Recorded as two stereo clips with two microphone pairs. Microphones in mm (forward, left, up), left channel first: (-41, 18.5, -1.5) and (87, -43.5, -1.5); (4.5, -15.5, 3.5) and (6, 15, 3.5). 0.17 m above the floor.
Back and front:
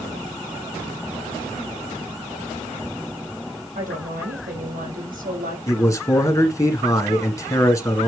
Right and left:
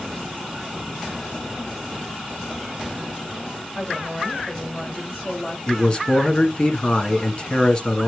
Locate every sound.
3.8 s a woman speaking: 35° right, 5.5 m
5.7 s a man speaking: 140° right, 1.9 m